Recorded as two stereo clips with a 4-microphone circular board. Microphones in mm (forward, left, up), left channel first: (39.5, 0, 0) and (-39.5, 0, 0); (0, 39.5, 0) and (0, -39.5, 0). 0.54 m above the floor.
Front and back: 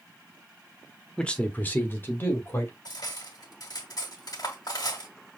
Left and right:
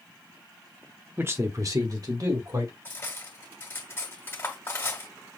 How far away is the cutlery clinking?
About 1.8 m.